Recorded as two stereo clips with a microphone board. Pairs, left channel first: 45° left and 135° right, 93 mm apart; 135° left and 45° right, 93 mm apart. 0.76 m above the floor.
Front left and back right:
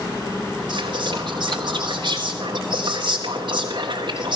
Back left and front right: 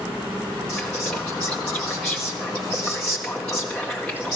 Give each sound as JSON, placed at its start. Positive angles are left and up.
{"t": 0.7, "sound": "whispering", "azimuth_deg": -140, "distance_m": 1.9}